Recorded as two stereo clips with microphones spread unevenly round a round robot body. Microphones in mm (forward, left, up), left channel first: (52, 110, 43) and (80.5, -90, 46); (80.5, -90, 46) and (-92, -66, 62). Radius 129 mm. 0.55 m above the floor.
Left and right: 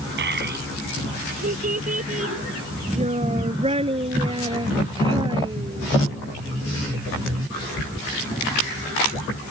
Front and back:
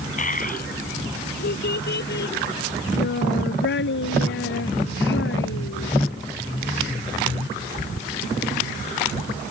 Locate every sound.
0.2 s a child speaking: 50° right; by 5.9 s 15° right